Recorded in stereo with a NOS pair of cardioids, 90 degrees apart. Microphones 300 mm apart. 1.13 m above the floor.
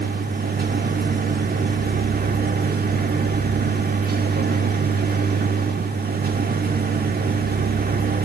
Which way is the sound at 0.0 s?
30° right.